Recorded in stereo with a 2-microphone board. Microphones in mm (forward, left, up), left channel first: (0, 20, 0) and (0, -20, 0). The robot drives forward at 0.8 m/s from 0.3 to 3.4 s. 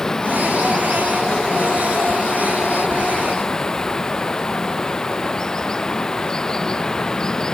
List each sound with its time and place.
0.0 s running water: 15° left (ahead or behind)